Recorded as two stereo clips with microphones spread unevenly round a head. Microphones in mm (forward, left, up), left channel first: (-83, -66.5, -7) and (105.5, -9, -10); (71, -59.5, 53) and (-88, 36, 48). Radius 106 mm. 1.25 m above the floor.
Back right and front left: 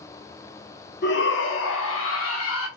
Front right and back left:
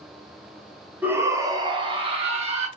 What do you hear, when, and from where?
1.0 s a shout: 130° right, 0.9 m; by 2.7 s 155° right, 1.5 m